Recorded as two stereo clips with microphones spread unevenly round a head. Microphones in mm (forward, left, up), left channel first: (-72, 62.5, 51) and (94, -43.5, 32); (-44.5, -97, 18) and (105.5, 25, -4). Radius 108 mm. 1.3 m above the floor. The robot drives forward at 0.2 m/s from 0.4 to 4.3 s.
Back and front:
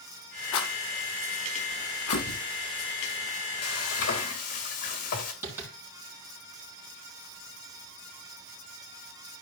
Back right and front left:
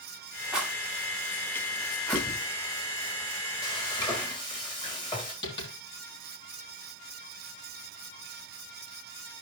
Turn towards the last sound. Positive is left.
turn(degrees=-110)